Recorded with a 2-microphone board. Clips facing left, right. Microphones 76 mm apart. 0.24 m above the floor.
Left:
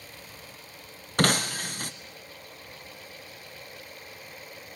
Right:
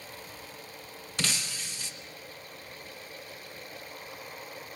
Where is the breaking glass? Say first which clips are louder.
Left 11 dB; 50° left (ahead or behind), 1.0 m.